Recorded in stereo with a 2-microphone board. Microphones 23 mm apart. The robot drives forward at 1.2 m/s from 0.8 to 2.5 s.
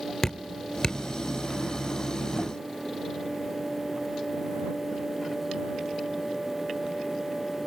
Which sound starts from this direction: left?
Dripping, at 0.2 s.